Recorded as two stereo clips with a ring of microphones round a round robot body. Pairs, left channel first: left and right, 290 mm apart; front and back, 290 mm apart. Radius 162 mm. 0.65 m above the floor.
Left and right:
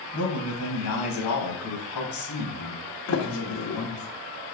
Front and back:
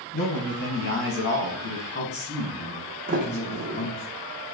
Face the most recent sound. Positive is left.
turn(degrees=115)